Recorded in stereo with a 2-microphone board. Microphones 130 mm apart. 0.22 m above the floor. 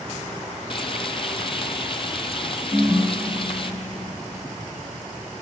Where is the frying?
40° left (ahead or behind), 1.1 m.